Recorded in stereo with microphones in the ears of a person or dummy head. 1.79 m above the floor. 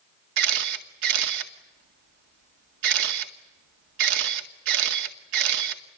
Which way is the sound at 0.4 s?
55° right (ahead or behind).